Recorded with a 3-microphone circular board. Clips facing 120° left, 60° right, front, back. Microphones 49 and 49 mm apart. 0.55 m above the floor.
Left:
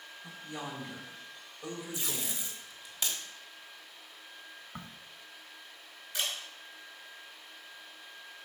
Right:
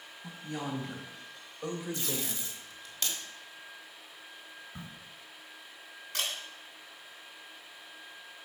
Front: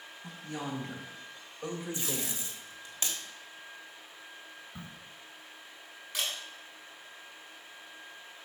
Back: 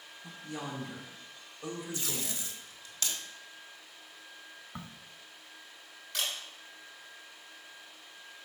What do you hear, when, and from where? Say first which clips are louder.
0.2 s a woman speaking: right 4 dB, front 2 dB; 45° right, 3.5 m; by 2.4 s 30° right, 1.4 m
1.9 s tape being pulled: right 2 dB, front 2 dB; 40° left, 1.3 m
4.8 s a crack: left 2 dB, back 3 dB; 160° left, 0.6 m
6.1 s a camera shutter: even, even; 80° right, 3 m